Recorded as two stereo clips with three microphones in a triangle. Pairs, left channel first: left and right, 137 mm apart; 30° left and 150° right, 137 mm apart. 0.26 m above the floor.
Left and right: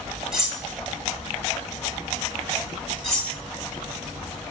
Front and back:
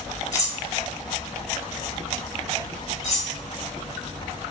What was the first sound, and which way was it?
Cutlery clinking, 10° right.